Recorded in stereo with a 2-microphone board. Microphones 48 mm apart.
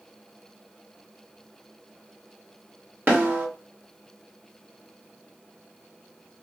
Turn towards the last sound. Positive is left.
turn(degrees=-40)  # may be behind; listen again after turning